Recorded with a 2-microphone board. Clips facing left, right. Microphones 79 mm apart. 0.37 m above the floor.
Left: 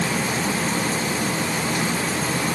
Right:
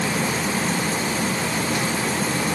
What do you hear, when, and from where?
Only background noise.